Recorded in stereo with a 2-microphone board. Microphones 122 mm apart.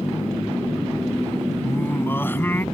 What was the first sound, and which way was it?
Singing, 15° left (ahead or behind).